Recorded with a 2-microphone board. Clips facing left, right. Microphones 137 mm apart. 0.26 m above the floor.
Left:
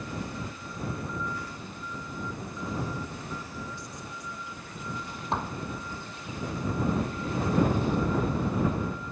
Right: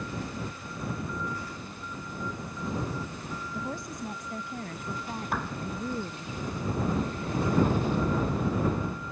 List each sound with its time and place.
3.5 s a woman speaking: 45° right (ahead or behind); by 6.3 s 55° right (ahead or behind)
5.3 s a clap: 25° left (ahead or behind)